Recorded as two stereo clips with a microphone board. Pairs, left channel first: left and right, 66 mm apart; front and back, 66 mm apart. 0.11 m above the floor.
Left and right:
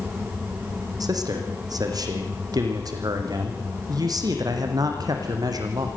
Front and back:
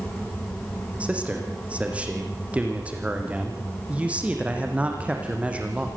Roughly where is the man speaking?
Right.